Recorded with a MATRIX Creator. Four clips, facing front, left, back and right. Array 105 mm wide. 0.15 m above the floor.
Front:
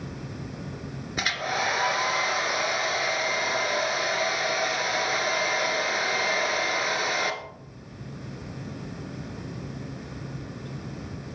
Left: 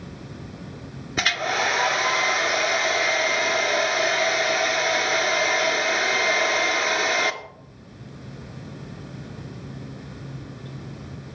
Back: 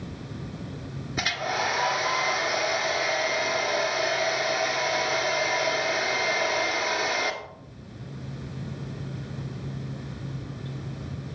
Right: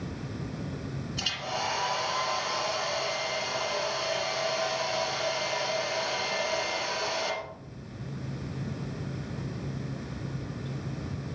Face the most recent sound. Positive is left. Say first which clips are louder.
# left 10 dB, even
turn(degrees=85)